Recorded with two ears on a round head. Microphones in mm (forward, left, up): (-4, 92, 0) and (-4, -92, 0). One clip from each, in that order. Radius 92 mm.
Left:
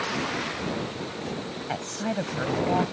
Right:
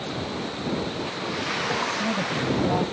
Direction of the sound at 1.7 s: 40° left (ahead or behind).